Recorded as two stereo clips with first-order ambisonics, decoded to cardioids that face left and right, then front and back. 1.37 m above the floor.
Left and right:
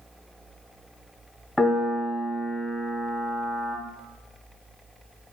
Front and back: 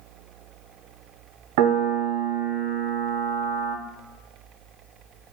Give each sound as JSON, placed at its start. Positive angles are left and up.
{"t": 1.6, "sound": "a piano", "azimuth_deg": 175, "distance_m": 0.5}